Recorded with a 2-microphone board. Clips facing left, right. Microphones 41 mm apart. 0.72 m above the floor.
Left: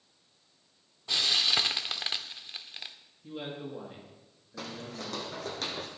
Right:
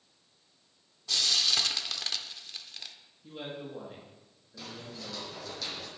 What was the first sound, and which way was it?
Frying, 20° left (ahead or behind).